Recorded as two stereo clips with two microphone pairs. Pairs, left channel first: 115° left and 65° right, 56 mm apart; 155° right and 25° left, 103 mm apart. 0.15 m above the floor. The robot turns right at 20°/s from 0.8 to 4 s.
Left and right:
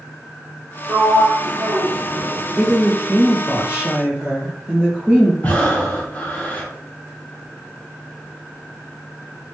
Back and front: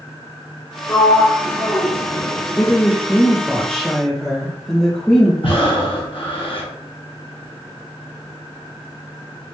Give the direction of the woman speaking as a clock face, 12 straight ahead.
3 o'clock.